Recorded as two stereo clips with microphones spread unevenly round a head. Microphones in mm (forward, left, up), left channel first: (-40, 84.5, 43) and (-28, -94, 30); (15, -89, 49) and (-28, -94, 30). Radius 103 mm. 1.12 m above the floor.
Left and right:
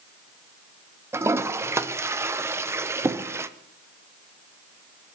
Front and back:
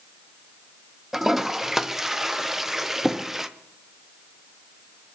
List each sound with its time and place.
1.1 s a toilet flushing: 145° right, 0.7 m